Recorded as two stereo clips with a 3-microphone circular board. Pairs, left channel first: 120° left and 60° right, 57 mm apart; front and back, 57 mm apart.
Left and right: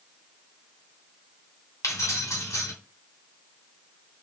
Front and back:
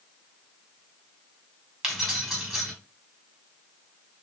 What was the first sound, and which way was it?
Keys jangling, 100° left.